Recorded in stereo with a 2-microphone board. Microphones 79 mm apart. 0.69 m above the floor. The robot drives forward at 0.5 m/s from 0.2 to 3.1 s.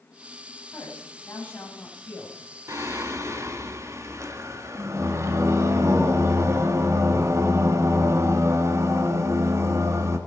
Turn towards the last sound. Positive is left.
turn(degrees=-40)  # may be behind; listen again after turning